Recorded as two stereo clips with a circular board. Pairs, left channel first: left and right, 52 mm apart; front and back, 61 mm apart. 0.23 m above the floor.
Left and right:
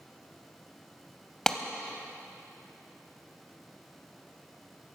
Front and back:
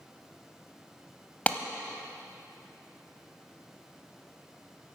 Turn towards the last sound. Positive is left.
turn(degrees=25)